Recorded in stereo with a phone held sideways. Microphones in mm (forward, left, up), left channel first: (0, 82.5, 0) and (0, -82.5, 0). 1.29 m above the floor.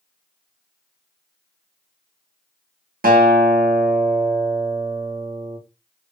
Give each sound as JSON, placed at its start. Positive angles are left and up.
{"t": 3.0, "sound": "a guitar", "side_deg": -65, "distance_m": 0.8}